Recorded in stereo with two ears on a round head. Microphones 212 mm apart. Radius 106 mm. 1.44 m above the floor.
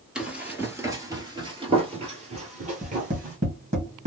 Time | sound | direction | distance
0.1 | running footsteps | 5° right (ahead or behind) | 1.5 m
2.8 | tapping | 30° right (ahead or behind) | 1.7 m